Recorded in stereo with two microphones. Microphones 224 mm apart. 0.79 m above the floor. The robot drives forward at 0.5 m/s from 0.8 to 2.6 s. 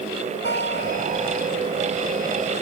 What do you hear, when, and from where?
0.5 s a guitar: 55° left (ahead or behind)